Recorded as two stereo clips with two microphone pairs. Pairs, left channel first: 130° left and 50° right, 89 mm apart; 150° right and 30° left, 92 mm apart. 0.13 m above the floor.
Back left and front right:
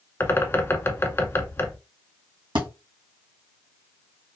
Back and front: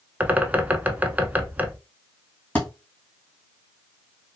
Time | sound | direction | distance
0.2 | a bird | 85° left | 0.6 m
2.5 | a thud | 75° right | 2 m